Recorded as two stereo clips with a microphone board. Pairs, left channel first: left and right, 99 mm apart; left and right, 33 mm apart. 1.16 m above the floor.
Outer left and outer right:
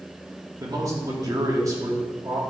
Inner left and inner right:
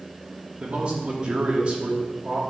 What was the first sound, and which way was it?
A man speaking, 35° right (ahead or behind).